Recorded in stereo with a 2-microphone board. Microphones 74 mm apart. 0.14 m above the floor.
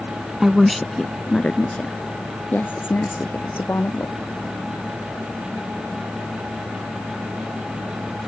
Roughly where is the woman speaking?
Centre.